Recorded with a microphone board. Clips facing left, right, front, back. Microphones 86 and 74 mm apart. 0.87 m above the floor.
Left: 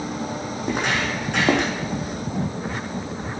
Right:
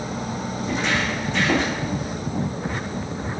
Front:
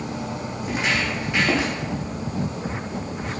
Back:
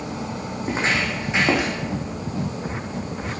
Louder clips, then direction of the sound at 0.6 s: Even, back 1 dB; 125° left.